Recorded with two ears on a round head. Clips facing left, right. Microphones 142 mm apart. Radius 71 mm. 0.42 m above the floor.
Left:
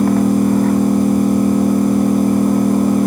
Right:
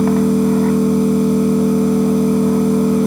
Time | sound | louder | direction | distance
0.0 | an engine running | even | 40° left (ahead or behind) | 4 m